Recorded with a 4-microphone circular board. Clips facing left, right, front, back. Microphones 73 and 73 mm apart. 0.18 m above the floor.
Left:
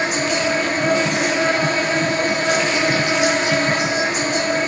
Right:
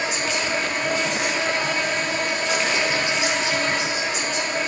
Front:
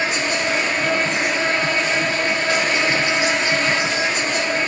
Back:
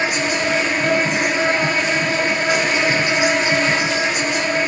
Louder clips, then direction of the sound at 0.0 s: Left 5 dB, back 2 dB; 105° left.